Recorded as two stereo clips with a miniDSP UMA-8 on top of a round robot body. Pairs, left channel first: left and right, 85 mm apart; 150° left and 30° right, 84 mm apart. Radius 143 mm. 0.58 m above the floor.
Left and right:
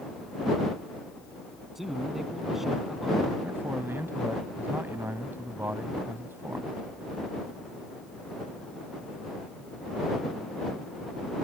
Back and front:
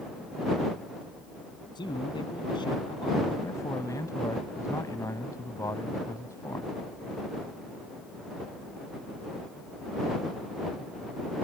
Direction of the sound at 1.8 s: 175° right.